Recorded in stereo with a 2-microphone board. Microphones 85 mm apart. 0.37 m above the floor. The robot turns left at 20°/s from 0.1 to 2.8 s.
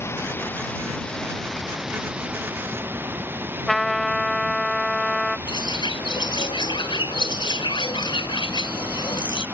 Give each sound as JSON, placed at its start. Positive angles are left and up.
{"t": 0.0, "sound": "running water", "azimuth_deg": 30}
{"t": 3.7, "sound": "a trumpet", "side_deg": 0}
{"t": 5.5, "sound": "a bird", "side_deg": 65}